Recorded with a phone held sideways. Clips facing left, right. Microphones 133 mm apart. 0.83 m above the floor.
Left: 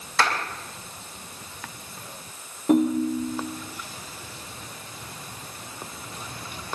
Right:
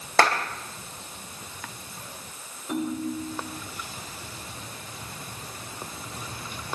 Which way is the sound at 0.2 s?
70° right (ahead or behind).